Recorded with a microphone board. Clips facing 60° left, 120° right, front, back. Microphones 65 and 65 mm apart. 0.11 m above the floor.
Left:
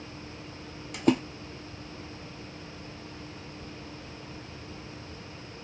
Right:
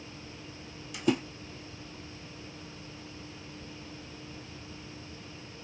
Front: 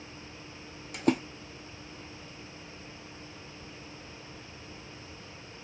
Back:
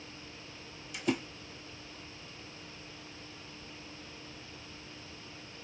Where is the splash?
30° left, 0.7 m.